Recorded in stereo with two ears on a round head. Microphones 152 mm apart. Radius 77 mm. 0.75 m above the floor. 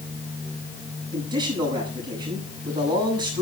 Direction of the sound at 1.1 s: 25° right (ahead or behind).